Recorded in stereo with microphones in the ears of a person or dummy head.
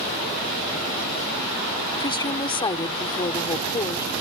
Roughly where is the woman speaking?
Left.